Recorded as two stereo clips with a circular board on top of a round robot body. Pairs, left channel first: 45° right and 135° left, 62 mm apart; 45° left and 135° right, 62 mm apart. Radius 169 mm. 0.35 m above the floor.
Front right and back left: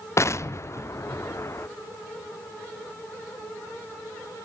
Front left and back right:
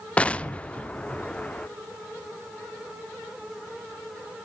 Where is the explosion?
20° right, 0.7 m.